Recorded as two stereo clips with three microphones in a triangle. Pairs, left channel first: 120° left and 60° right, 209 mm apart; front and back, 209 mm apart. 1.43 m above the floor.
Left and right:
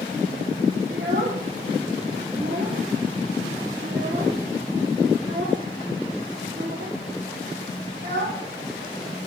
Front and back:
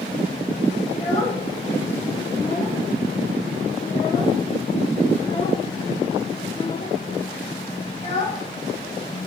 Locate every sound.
0.9 s a child speaking: 50° right, 1.4 m